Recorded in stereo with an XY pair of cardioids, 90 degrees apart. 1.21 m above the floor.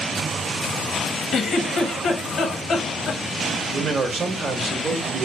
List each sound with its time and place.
1.3 s a giggle: 65° left, 0.8 m
3.7 s a man speaking: 50° right, 1.0 m